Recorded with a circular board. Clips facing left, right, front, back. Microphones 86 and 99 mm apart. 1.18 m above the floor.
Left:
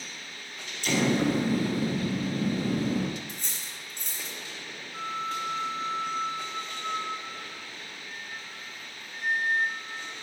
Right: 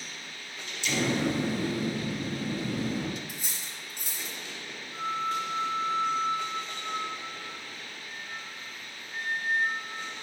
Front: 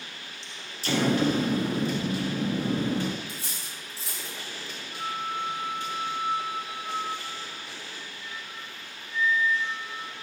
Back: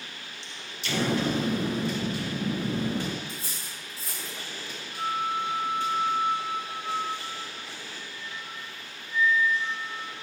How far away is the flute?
About 1.1 m.